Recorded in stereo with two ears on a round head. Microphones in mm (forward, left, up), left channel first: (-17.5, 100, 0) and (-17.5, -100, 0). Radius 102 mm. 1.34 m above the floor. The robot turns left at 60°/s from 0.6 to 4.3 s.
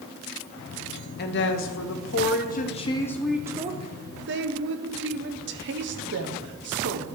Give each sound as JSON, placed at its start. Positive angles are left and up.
{"t": 1.2, "sound": "a woman speaking", "azimuth_deg": 125, "distance_m": 0.9}